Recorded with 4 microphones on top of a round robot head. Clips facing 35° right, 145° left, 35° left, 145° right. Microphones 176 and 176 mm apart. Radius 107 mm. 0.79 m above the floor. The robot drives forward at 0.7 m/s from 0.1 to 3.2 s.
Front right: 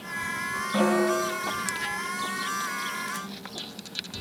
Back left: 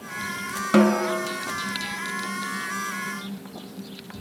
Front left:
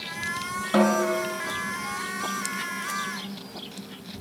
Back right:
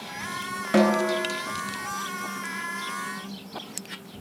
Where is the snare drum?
145° left, 1.0 m; by 1.2 s 155° left, 1.2 m.